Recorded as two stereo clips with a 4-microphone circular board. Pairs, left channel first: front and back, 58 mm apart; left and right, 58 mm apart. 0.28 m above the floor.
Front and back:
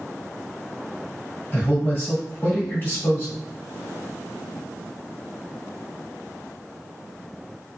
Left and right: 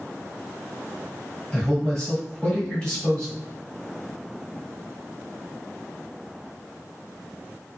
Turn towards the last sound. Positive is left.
turn(degrees=20)